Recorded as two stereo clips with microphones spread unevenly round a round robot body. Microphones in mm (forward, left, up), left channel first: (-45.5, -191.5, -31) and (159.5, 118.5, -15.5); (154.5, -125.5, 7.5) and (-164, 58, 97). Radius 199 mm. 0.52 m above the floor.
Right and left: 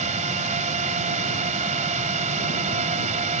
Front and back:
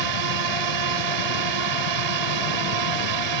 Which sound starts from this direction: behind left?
A drone, at 0.0 s.